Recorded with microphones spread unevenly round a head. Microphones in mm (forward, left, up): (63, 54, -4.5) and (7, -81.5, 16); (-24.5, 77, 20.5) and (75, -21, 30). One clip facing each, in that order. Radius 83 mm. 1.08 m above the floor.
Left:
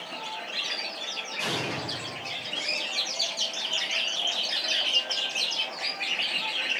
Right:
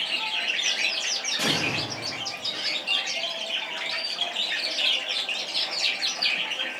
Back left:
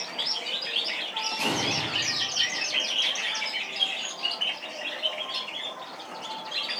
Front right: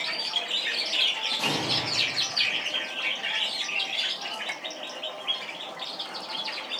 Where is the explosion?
150° right, 1.5 m.